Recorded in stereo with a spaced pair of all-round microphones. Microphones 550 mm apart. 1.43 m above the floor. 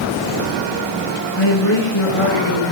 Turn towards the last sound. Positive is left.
turn(degrees=80)